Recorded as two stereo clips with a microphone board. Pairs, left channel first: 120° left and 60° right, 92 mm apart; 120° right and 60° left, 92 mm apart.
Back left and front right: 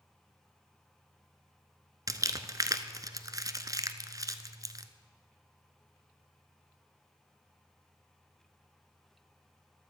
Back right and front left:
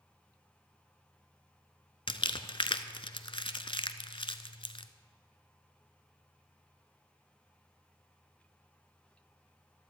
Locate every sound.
2.1 s crumpling: 105° right, 0.6 m